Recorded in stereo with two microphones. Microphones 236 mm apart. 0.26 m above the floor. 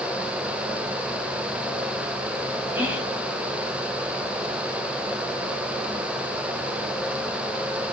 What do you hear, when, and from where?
2.8 s whispering: 5° right (ahead or behind), 1.7 m